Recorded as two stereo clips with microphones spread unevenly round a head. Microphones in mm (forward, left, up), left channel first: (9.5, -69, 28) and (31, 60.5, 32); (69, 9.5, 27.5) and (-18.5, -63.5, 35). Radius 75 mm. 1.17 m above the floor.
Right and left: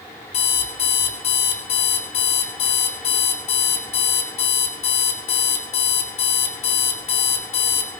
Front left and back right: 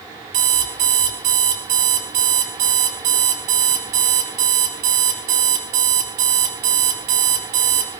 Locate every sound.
0.3 s an alarm clock: 150° right, 2.5 m